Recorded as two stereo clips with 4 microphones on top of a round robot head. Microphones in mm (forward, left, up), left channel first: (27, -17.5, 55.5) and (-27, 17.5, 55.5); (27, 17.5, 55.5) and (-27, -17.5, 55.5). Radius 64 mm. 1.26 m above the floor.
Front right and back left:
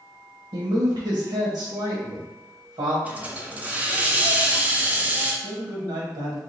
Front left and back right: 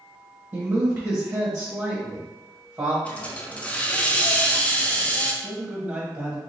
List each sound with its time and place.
0.5 s a woman speaking: 140° left, 1.1 m
3.0 s a hiss: 90° left, 0.7 m
5.4 s a man speaking: 140° left, 1.2 m